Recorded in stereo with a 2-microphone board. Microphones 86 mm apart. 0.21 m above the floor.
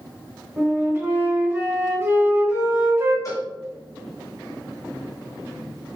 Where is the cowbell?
40° left (ahead or behind), 1.8 m.